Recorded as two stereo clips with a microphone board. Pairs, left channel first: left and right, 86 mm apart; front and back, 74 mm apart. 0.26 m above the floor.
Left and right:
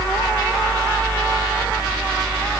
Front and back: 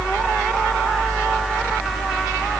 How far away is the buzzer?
No buzzer in this recording.